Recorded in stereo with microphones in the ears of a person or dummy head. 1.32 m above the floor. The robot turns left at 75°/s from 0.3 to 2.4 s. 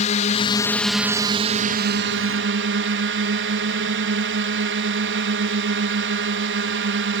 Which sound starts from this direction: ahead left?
A drone, at 0.0 s.